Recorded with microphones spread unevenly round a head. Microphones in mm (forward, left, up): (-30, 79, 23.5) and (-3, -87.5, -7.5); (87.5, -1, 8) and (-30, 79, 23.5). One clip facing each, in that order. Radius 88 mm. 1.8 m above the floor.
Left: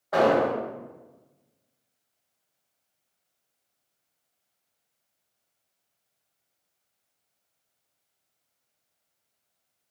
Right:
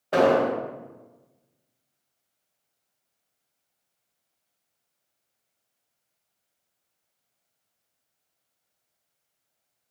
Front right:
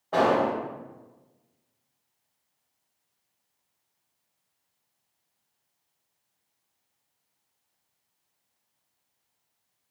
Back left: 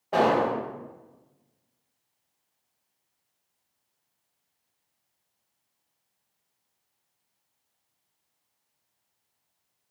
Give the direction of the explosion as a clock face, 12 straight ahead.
5 o'clock.